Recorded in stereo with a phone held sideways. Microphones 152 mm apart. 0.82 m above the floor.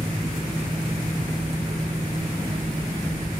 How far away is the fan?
About 1.7 m.